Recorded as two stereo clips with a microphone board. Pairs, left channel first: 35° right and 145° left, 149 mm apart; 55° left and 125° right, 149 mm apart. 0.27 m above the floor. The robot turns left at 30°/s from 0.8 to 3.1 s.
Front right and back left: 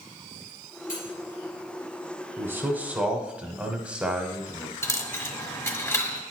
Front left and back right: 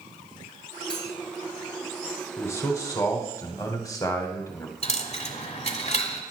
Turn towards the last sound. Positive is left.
turn(degrees=30)